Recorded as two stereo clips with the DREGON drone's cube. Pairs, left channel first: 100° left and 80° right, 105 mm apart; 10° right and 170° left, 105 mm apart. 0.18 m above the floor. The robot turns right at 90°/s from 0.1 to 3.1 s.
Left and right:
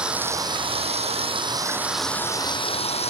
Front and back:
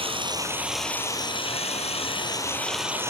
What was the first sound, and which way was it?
Running water, 160° right.